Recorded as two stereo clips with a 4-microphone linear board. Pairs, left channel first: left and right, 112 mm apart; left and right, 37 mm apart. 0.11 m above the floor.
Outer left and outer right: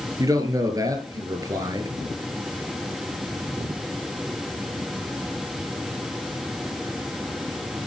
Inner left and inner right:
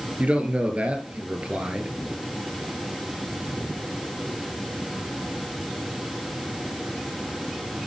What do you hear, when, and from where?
0.2 s a man speaking: 30° right (ahead or behind), 2.5 m